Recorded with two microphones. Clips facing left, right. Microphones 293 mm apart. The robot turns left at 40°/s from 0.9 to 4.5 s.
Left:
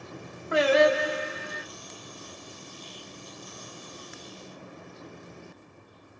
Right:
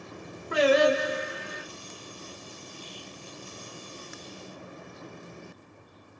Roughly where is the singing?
Right.